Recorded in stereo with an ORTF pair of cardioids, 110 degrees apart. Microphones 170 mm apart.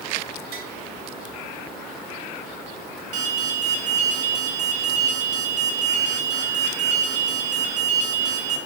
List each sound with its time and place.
0.5 s tapping: 70° right, 3 m
3.1 s an alarm: 45° right, 4 m